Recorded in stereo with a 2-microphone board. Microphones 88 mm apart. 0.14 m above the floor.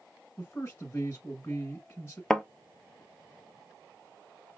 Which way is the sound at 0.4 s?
25° left (ahead or behind).